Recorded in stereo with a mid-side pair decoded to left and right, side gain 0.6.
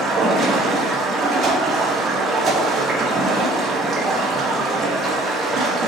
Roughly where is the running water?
Ahead right.